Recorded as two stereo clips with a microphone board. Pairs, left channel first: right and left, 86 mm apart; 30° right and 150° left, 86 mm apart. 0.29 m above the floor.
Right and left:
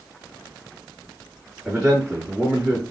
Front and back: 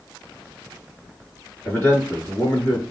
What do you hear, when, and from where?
1.6 s a man speaking: 20° left, 2 m